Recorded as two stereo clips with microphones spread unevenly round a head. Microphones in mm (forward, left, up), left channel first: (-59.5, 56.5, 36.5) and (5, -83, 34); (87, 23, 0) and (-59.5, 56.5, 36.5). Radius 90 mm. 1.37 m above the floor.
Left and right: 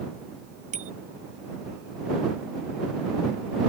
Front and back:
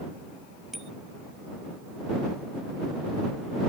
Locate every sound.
0.7 s a bicycle bell: 105° right